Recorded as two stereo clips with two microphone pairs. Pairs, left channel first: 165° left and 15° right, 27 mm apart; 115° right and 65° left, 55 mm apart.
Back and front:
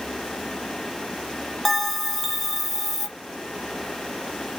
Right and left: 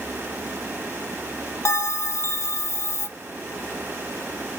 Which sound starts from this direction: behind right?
A bell, at 1.6 s.